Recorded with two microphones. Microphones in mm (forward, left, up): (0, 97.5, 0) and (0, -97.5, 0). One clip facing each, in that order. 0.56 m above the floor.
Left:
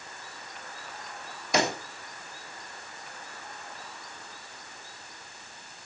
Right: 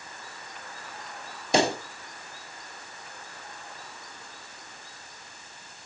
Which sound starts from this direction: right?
A pop, at 1.5 s.